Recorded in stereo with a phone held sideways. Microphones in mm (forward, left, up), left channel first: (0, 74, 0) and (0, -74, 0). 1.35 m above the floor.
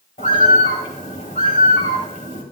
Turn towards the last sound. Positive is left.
turn(degrees=70)  # may be behind; listen again after turning